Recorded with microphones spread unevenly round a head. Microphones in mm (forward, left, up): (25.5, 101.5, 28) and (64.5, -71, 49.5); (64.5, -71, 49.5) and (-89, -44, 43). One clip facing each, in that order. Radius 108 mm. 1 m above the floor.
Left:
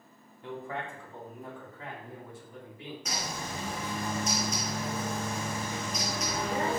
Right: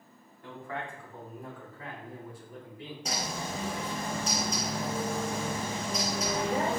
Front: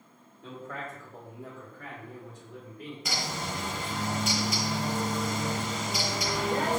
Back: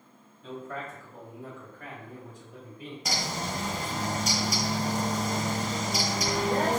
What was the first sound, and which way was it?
A man speaking, 35° left.